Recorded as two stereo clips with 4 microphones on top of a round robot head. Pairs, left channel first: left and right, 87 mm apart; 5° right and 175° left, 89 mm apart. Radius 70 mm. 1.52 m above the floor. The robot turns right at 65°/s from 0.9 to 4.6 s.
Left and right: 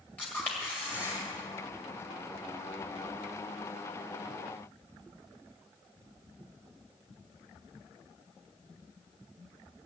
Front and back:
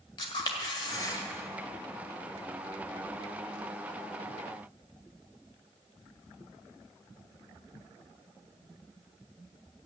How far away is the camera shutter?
About 1.7 m.